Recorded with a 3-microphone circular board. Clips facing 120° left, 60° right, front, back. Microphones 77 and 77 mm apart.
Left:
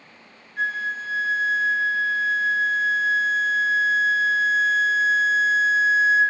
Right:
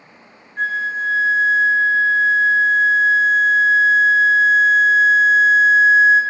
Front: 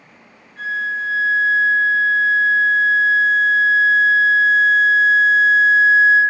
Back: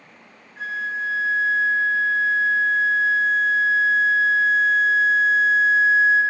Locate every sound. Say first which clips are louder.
0.6 s a flute: right 5 dB, front 4 dB; 95° right, 1.9 m